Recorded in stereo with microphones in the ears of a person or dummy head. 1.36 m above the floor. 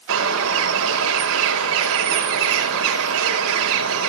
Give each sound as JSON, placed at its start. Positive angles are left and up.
{"t": 0.1, "sound": "a bird", "side_deg": -75, "distance_m": 5.0}